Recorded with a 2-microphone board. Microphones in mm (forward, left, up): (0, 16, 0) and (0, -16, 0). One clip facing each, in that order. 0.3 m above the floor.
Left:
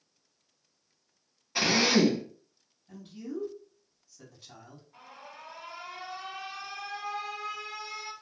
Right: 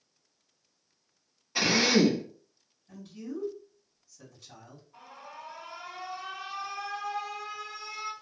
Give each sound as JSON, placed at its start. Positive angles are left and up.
{"t": 1.6, "sound": "a drill", "side_deg": 5, "distance_m": 1.3}
{"t": 2.9, "sound": "a man speaking", "side_deg": 25, "distance_m": 2.0}
{"t": 4.9, "sound": "an alarm", "side_deg": 25, "distance_m": 2.0}